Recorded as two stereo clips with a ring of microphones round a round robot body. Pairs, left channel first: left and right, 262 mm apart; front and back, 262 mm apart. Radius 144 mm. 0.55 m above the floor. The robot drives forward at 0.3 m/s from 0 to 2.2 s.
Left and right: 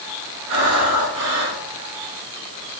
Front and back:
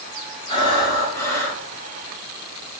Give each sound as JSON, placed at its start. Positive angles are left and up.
{"t": 0.5, "sound": "breathing", "azimuth_deg": -70, "distance_m": 1.7}